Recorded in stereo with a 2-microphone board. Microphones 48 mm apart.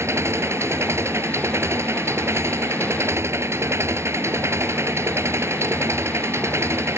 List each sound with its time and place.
0.0 s an engine running: 65° right (ahead or behind)